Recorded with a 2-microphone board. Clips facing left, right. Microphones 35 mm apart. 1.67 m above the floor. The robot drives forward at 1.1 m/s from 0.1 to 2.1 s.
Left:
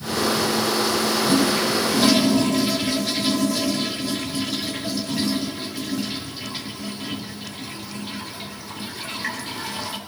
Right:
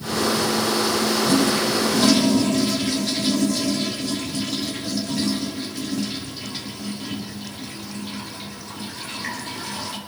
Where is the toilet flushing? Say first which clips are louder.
Left 1 dB; 20° left (ahead or behind), 1.0 m; by 10.0 s 10° left (ahead or behind), 1.5 m.